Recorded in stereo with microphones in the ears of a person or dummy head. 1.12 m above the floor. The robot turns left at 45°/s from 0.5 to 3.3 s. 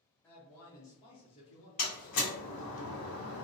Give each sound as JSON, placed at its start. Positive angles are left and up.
{"t": 0.2, "sound": "a man speaking", "azimuth_deg": 170, "distance_m": 0.8}
{"t": 1.8, "sound": "a door slam", "side_deg": 30, "distance_m": 0.9}